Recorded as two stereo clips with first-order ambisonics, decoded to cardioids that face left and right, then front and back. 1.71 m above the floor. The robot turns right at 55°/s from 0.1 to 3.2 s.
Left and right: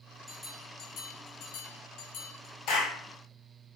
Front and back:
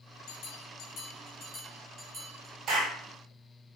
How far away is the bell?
About 4 m.